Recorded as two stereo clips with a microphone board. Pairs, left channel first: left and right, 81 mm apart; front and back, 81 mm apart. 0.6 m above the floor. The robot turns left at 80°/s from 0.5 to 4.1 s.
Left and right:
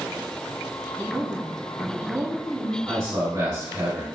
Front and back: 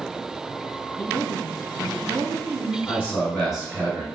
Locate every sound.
1.0 s a woman speaking: 45° right, 0.7 m; by 2.8 s 170° left, 0.7 m
2.9 s a man speaking: 40° right, 1.8 m; by 4.1 s 135° right, 1.8 m